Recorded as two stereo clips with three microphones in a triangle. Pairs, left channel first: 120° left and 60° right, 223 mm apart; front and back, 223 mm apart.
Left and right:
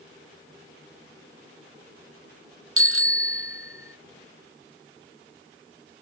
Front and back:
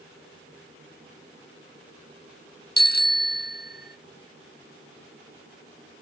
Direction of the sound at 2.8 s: 45° right.